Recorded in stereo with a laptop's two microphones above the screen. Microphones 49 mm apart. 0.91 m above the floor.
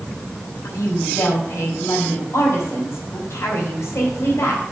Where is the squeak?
I don't hear a squeak.